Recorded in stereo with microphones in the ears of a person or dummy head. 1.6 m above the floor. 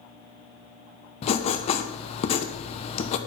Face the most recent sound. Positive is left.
turn(degrees=45)  # may be behind; listen again after turning